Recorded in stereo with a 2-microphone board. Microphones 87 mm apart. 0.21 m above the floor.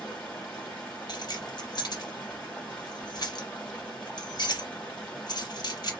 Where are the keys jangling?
60° left (ahead or behind), 1.4 m.